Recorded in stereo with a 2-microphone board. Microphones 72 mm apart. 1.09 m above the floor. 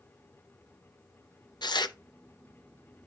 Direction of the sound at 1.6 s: 85° left.